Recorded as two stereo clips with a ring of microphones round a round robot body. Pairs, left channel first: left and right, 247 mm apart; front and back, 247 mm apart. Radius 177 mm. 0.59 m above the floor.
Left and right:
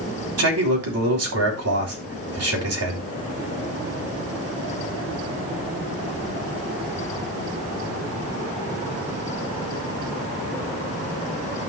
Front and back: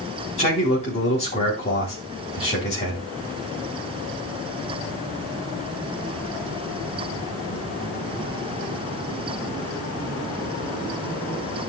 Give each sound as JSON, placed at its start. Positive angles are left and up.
{"t": 0.4, "sound": "a man speaking", "azimuth_deg": -75, "distance_m": 3.5}